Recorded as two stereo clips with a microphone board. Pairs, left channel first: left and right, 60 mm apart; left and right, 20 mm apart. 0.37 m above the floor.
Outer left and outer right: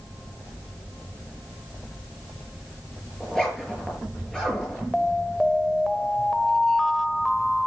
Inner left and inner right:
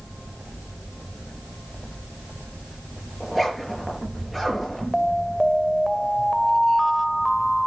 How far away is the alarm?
About 0.9 m.